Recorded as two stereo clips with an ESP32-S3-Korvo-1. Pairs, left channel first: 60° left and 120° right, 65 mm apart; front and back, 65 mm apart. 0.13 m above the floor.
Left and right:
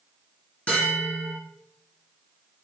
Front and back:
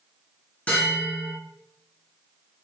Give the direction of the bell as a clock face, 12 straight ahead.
11 o'clock.